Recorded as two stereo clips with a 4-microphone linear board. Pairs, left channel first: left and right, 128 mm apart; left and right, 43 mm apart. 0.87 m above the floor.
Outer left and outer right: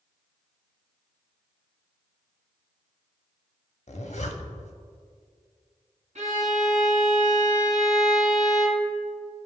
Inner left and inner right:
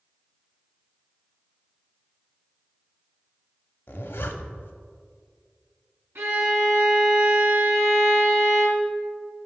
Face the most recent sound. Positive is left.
turn(degrees=-65)  # may be behind; listen again after turning